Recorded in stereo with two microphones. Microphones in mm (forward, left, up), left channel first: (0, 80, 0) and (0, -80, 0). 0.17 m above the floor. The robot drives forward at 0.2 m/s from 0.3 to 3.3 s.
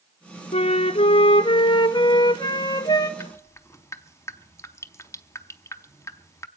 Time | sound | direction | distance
0.5 | a flute | 45° left (ahead or behind) | 0.5 m
3.2 | dripping | 20° left (ahead or behind) | 0.6 m